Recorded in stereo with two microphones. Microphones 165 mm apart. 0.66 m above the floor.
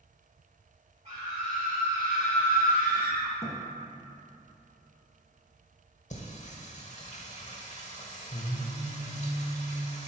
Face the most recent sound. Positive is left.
turn(degrees=45)  # may be behind; listen again after turning